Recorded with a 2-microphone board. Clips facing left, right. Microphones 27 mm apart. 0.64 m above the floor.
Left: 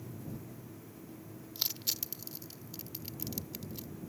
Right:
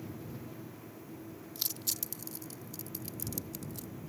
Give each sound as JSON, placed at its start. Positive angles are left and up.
{"t": 1.6, "sound": "crushing", "side_deg": 20}